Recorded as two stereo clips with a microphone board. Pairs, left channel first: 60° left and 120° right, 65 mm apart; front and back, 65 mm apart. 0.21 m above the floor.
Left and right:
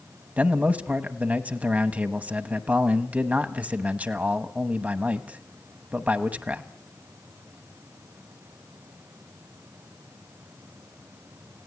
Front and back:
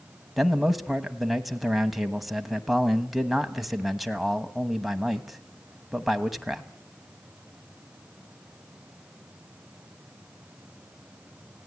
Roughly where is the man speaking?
Right.